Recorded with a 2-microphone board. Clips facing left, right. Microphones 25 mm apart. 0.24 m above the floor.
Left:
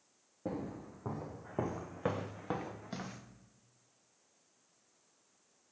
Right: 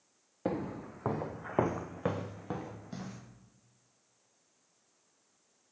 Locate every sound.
0.5 s footsteps: 70° right (ahead or behind), 1.6 m; by 3.2 s 30° left (ahead or behind), 1.9 m